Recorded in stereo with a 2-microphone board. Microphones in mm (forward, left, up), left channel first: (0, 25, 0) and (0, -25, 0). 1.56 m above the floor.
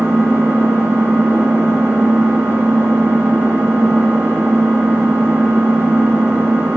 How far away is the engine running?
About 1.7 m.